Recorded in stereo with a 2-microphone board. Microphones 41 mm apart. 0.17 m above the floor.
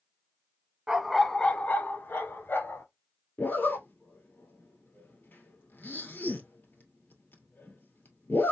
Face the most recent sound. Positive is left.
turn(degrees=60)  # may be behind; listen again after turning